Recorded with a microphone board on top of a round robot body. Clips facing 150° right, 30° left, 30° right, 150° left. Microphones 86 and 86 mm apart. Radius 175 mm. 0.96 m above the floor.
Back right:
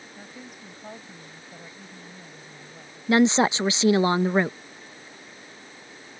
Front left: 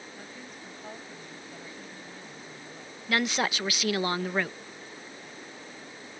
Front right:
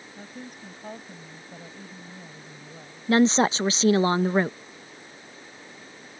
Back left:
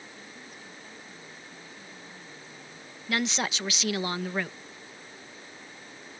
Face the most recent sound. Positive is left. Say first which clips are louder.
# back right 9 dB, front right 10 dB
turn(degrees=-85)